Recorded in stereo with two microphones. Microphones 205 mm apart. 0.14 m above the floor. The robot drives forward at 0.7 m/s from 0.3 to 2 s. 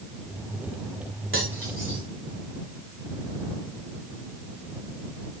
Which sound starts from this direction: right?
Cutlery clinking, at 1.3 s.